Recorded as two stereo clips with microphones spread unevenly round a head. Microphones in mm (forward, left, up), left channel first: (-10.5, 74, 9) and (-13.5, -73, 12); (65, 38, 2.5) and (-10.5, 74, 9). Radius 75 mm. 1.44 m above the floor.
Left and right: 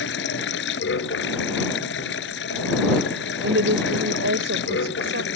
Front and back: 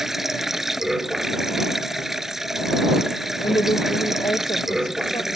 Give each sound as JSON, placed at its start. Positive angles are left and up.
{"t": 0.0, "sound": "running water", "azimuth_deg": 70}
{"t": 3.4, "sound": "a woman speaking", "azimuth_deg": -90}